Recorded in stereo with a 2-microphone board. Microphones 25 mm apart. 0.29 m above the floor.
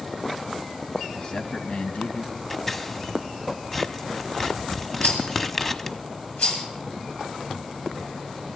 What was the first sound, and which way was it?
A man speaking, 35° left (ahead or behind).